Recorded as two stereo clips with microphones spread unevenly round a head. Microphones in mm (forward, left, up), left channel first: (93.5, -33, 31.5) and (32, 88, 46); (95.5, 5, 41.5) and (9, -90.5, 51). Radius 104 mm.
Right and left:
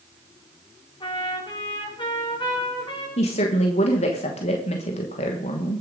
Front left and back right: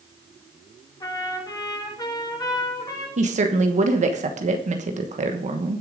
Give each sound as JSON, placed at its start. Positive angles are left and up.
{"t": 1.0, "sound": "a trumpet", "azimuth_deg": -10, "distance_m": 4.0}
{"t": 3.2, "sound": "a woman speaking", "azimuth_deg": -110, "distance_m": 1.3}